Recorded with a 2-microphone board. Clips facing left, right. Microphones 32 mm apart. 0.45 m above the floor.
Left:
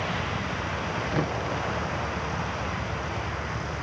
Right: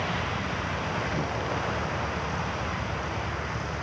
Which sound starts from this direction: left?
Knocking, at 1.1 s.